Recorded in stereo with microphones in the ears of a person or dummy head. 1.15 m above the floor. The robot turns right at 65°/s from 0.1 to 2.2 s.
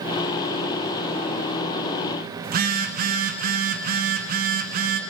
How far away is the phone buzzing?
About 1.5 m.